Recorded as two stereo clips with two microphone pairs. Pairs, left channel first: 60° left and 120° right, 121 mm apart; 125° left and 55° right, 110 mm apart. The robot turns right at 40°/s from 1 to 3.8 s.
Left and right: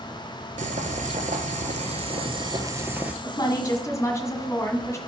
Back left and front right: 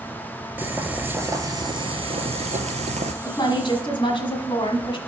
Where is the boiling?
130° right, 0.9 m; by 3.1 s 45° right, 0.9 m.